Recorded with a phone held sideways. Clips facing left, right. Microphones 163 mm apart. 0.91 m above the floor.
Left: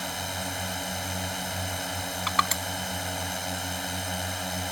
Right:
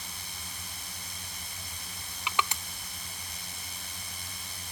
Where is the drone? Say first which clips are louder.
Left 15 dB; 75° left (ahead or behind).